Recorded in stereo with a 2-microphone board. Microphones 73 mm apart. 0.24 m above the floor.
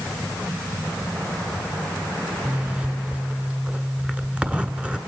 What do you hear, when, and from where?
2.5 s a zipper: 15° right (ahead or behind), 1.4 m